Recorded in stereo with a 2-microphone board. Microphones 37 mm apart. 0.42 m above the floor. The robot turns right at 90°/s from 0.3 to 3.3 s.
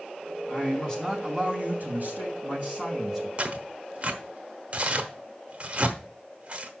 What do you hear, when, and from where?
0.5 s a man speaking: 115° left, 3 m; by 3.3 s 10° left, 3 m
3.4 s tearing paper: 40° right (ahead or behind), 0.9 m